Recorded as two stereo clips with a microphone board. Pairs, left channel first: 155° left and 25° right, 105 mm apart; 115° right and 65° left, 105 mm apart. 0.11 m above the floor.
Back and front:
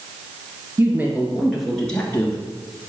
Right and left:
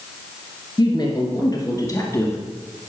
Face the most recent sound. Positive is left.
turn(degrees=-160)